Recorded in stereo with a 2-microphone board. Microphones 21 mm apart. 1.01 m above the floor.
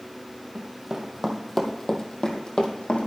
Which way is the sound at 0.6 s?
25° right (ahead or behind).